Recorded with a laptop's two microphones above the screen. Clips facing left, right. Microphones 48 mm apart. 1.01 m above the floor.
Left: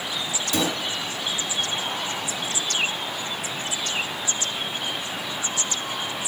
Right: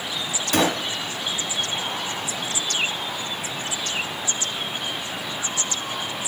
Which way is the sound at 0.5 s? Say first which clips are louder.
Right 5 dB; 60° right (ahead or behind).